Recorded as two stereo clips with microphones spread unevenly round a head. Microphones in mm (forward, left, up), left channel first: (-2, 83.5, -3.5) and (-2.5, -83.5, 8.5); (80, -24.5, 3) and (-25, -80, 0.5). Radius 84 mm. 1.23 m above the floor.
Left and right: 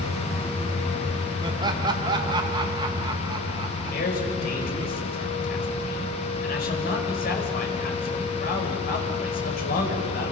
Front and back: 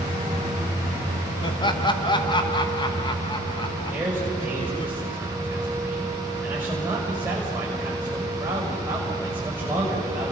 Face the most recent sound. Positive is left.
turn(degrees=130)